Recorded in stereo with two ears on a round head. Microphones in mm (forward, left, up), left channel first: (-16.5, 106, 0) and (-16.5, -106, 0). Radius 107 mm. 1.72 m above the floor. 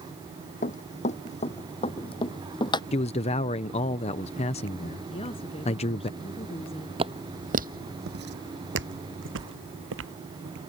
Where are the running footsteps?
30° left (ahead or behind); by 2.8 s 20° left (ahead or behind).